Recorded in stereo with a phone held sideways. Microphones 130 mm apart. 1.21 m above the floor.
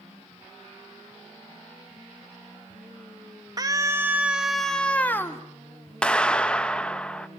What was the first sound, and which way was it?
A scream, 30° right (ahead or behind).